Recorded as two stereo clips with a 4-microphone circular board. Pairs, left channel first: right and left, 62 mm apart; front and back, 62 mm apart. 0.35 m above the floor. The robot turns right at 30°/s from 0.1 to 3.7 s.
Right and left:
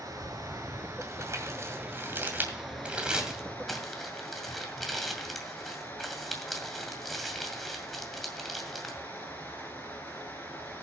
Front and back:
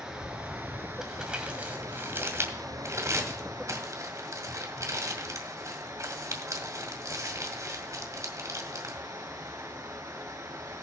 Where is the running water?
100° left, 3 m; by 10.8 s 150° right, 3 m.